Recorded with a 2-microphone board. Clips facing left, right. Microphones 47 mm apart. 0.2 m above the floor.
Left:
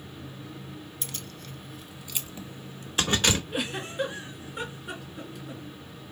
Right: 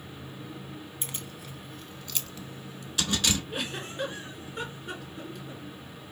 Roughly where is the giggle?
Centre.